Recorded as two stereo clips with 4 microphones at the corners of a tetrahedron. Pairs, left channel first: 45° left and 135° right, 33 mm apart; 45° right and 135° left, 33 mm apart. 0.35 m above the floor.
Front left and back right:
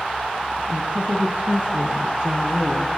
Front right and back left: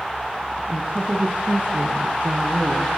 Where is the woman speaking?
175° right, 5 m; by 2.9 s 150° left, 5 m.